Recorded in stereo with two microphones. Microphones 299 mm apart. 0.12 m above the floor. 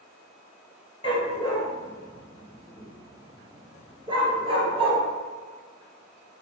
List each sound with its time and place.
1.0 s a dog barking: 20° left (ahead or behind), 1.0 m; by 5.0 s 20° right (ahead or behind), 1.4 m